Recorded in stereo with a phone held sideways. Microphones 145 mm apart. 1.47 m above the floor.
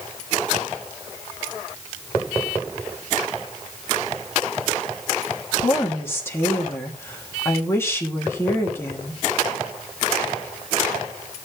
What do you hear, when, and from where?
5.6 s a woman speaking: 15° left (ahead or behind), 3 m